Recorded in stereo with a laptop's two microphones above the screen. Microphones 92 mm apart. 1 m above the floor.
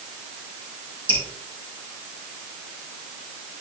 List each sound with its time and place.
1.1 s dripping: 70° right (ahead or behind), 3 m